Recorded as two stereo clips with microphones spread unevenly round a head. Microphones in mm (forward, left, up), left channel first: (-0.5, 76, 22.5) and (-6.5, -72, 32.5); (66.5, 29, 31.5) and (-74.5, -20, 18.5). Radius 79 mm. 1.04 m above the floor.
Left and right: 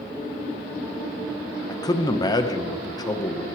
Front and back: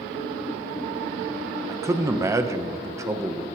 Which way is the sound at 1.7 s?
140° left.